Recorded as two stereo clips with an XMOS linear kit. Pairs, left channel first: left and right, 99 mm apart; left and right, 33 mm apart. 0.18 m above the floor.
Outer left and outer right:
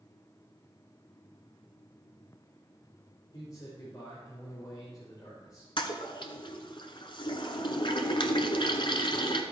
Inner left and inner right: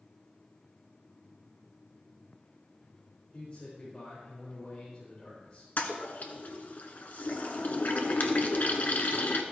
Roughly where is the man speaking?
Left.